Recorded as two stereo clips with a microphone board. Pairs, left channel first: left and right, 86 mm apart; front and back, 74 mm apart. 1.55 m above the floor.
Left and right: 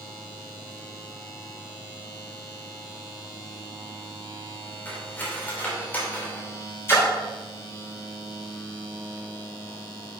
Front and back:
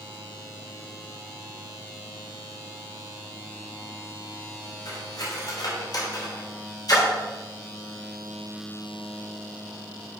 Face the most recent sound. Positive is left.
turn(degrees=30)